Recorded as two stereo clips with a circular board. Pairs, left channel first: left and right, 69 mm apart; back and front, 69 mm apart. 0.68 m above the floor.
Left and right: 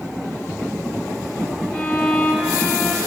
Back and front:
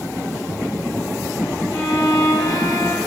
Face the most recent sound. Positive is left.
turn(degrees=170)